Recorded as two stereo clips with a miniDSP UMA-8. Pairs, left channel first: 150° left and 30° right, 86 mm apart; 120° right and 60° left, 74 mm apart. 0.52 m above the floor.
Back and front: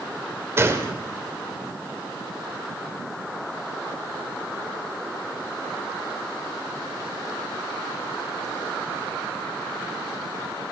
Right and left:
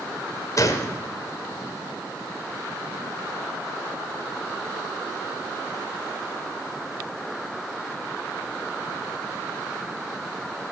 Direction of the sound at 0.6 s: 85° right.